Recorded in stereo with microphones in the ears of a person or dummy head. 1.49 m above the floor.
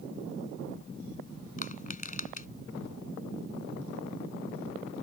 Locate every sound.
1.6 s crushing: 45° left (ahead or behind)